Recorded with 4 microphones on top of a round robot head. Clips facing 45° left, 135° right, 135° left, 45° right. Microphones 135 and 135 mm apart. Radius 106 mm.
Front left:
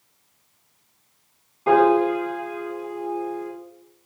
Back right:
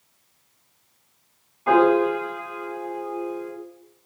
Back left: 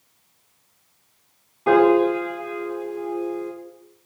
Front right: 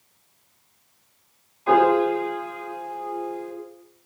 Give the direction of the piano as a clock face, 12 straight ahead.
9 o'clock.